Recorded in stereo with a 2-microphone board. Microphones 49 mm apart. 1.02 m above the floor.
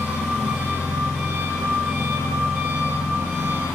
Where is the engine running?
85° left, 1.3 m.